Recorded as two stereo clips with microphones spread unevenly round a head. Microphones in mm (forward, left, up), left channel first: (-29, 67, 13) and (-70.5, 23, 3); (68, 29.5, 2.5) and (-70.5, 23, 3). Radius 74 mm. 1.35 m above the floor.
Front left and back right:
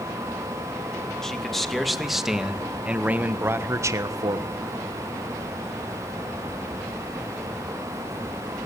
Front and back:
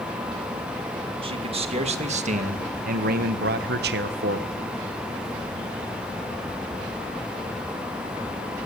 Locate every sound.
1.2 s a man speaking: 130° left, 2.5 m; by 4.5 s 140° right, 1.5 m